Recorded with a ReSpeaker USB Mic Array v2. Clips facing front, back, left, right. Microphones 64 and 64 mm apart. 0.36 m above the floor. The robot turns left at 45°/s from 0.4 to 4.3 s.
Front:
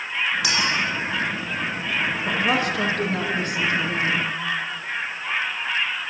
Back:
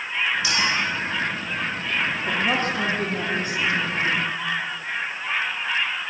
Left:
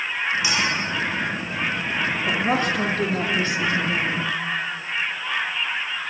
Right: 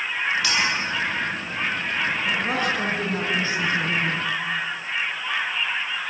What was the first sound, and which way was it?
A clink, 20° left.